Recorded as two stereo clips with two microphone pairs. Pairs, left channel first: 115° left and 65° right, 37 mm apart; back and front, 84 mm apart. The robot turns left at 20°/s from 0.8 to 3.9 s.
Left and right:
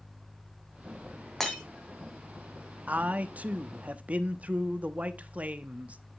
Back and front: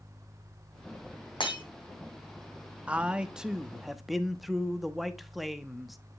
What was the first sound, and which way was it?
Breaking glass, 165° right.